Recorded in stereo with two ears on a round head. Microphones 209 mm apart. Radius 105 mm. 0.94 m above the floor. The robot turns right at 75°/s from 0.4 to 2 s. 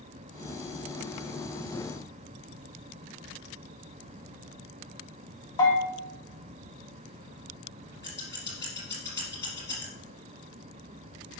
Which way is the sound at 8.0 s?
10° left (ahead or behind).